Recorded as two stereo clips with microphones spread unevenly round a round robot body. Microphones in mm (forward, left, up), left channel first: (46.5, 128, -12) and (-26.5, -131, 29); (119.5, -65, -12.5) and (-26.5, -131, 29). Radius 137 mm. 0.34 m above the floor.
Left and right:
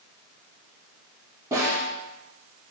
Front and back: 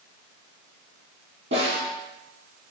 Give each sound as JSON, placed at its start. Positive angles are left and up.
{"t": 1.5, "sound": "a snare drum", "azimuth_deg": 175, "distance_m": 3.5}